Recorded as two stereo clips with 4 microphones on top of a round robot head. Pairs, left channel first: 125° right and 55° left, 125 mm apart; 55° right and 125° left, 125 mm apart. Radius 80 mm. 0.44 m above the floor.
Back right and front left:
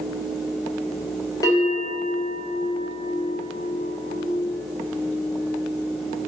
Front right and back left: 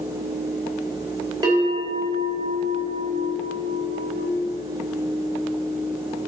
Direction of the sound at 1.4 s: 175° left.